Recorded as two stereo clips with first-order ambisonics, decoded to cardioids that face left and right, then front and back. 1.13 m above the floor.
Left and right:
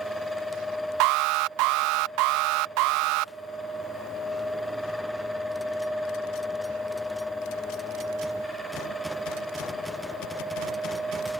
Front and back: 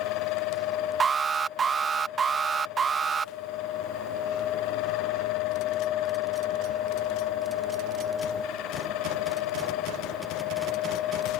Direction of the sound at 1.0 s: 110° right.